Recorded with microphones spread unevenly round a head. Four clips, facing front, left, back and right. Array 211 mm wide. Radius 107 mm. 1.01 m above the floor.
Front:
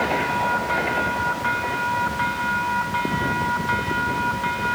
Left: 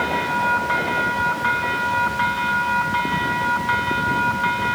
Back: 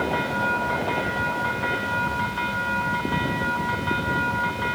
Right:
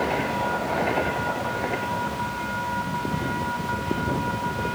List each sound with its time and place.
Only background noise.